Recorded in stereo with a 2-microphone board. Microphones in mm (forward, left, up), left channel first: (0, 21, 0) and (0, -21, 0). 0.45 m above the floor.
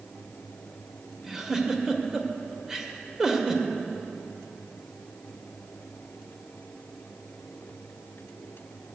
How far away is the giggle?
About 1.2 m.